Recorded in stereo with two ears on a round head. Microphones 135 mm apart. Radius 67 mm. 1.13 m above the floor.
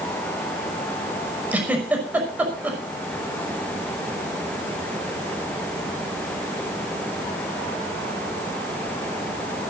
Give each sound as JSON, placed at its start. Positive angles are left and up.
{"t": 1.5, "sound": "a giggle", "side_deg": -10, "distance_m": 5.5}